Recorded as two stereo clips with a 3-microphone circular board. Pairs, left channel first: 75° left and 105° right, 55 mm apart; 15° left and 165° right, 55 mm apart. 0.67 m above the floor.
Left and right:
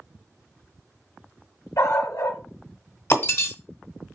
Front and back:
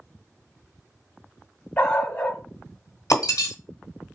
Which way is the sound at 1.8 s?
70° left.